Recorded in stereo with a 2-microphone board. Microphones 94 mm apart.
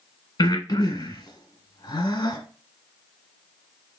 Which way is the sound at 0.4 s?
45° left (ahead or behind).